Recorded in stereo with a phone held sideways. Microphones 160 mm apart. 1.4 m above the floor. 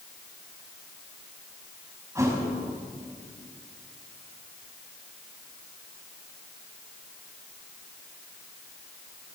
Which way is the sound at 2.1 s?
20° right (ahead or behind).